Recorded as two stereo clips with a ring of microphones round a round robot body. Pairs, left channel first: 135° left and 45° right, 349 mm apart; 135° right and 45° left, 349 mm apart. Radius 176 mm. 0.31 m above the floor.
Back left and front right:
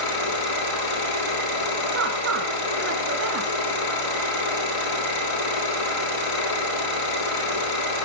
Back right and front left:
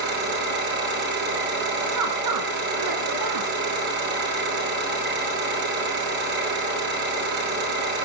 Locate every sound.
0.0 s an engine running: 105° left, 9.5 m
1.9 s a woman speaking: 10° left, 4.5 m